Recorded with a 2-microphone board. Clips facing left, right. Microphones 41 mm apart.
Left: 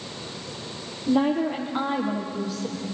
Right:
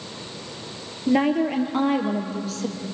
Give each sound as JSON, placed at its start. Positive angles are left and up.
{"t": 1.1, "sound": "a woman speaking", "side_deg": -70, "distance_m": 4.0}